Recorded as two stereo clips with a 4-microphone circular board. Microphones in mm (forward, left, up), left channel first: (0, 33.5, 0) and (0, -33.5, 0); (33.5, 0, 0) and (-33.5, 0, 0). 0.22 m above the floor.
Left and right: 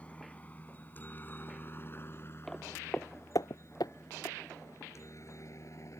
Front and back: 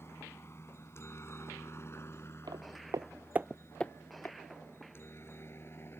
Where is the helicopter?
30° left; by 6.0 s 55° left.